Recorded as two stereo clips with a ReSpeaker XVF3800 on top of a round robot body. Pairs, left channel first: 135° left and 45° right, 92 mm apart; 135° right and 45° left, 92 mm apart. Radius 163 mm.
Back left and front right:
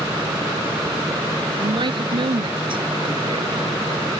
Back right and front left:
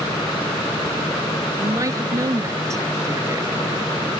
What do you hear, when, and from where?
1.6 s a woman speaking: 10° right; by 3.9 s 15° right